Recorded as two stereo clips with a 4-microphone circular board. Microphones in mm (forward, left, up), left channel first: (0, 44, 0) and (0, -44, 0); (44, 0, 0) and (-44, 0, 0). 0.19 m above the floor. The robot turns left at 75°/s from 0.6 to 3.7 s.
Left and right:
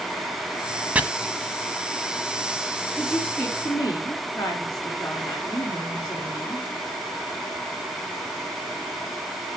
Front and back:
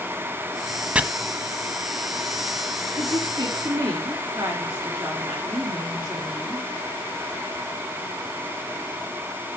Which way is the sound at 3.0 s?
165° right.